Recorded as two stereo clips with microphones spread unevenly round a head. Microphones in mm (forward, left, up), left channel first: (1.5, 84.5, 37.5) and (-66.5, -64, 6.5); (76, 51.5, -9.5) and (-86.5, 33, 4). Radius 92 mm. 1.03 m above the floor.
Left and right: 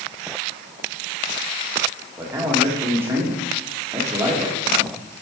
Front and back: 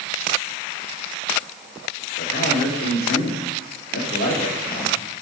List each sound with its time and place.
2.2 s a man speaking: 35° right, 2 m